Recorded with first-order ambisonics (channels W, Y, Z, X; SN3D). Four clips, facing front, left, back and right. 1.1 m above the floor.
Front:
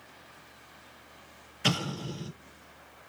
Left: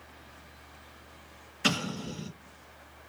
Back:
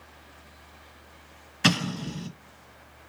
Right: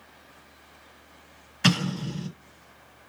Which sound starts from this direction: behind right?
An explosion, at 1.6 s.